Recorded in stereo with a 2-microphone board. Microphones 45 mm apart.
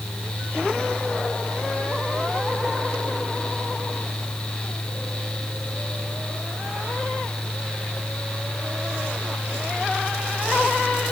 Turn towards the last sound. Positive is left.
No sound to turn to.